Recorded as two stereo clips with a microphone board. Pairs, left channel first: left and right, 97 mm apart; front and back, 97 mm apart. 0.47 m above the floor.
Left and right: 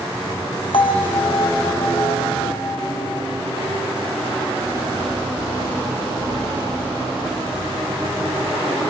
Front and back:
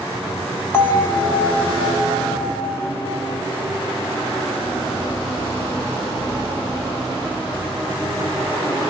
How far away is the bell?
About 2.5 m.